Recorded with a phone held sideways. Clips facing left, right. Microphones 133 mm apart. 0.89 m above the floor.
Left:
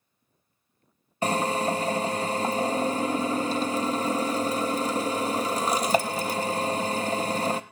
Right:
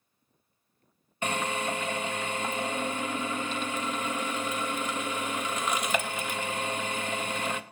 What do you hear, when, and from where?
1.2 s a drill: 35° left (ahead or behind), 0.7 m